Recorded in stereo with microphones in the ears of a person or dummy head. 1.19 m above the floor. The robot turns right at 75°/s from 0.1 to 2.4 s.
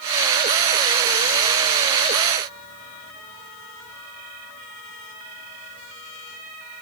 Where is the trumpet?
I don't hear a trumpet.